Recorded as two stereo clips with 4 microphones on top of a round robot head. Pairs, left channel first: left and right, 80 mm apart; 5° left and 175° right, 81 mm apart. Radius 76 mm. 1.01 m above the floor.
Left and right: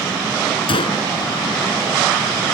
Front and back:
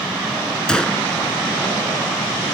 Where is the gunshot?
85° left.